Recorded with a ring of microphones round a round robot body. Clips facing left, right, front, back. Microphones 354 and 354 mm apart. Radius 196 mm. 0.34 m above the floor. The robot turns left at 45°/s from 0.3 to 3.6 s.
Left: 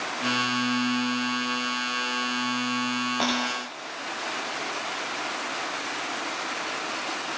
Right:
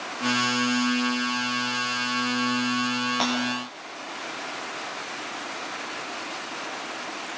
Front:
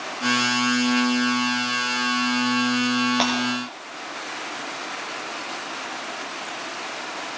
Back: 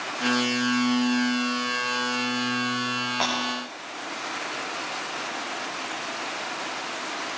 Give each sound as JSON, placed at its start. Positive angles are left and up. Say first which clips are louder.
{"t": 3.2, "sound": "breaking glass", "louder": "even, front 7 dB", "azimuth_deg": -25, "distance_m": 7.0}